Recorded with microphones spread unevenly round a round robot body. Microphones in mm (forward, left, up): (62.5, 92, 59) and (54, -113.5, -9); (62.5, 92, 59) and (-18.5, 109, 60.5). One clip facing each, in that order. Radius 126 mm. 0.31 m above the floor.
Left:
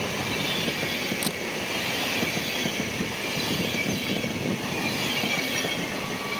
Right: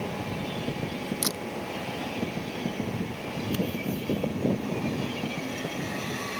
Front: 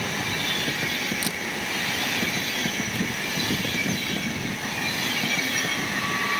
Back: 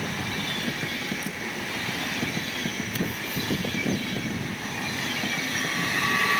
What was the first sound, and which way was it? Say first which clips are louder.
A camera shutter: left 2 dB, front 3 dB; 35° right.